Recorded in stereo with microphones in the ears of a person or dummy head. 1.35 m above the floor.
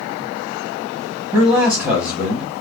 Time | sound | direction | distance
1.3 | a man speaking | 20° right (ahead or behind) | 1.1 m